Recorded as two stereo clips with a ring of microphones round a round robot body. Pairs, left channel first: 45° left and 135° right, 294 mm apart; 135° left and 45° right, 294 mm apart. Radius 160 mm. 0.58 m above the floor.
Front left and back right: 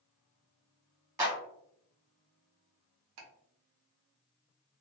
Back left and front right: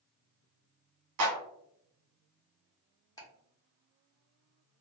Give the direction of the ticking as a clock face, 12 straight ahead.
5 o'clock.